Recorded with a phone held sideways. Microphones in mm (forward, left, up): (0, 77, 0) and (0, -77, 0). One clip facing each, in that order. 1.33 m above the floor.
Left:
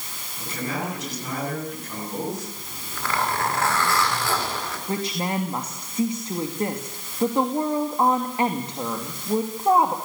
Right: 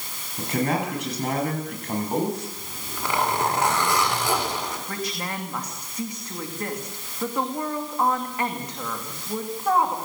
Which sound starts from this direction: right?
A man speaking, at 0.4 s.